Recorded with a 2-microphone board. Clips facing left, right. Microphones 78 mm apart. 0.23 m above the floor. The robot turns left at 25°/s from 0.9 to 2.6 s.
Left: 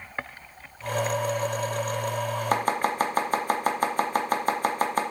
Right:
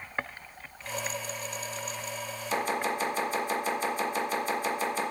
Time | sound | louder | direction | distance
2.5 | chopping | left 4 dB | 50° left (ahead or behind) | 1.7 m